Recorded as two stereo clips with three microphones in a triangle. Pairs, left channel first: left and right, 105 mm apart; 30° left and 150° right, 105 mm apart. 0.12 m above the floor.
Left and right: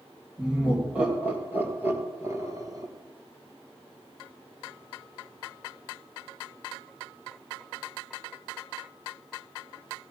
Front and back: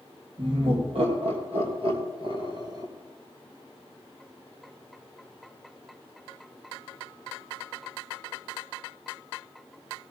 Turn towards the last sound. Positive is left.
turn(degrees=-120)